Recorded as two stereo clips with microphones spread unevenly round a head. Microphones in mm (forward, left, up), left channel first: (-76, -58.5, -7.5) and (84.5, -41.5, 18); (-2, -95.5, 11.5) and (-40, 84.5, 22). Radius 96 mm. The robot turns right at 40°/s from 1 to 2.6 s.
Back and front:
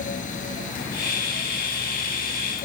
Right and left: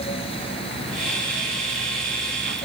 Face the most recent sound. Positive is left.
No sound to turn to.